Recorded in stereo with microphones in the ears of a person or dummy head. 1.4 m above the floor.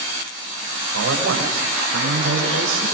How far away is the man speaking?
About 7.5 m.